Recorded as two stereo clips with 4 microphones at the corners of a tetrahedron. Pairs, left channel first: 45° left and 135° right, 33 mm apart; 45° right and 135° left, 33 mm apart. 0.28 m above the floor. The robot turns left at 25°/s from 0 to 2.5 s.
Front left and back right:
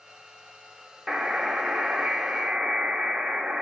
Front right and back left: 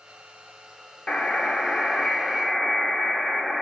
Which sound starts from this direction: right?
A buzzer, at 1.1 s.